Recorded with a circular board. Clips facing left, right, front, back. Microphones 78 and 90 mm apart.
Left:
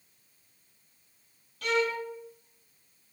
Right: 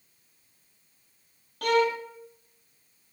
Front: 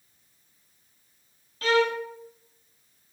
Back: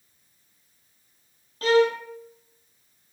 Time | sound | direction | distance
1.6 | a violin | 125° right | 1.3 m